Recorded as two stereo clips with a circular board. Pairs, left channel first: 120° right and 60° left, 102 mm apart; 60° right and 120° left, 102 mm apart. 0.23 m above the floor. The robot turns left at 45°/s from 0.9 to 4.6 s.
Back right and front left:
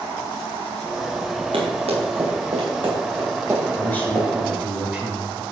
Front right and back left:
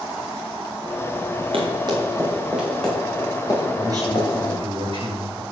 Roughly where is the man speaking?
Behind.